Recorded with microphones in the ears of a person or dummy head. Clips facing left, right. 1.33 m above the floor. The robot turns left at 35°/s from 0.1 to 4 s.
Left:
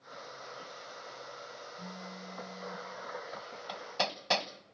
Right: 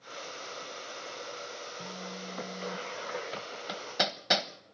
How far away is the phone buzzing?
About 0.8 m.